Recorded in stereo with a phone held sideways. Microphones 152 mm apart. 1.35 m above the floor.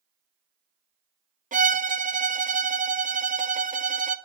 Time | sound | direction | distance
1.5 | a violin | 60° right (ahead or behind) | 0.5 m